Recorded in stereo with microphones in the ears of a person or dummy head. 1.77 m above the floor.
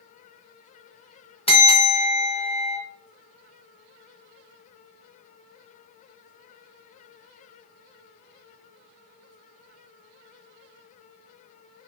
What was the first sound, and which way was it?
A bell, 30° left (ahead or behind).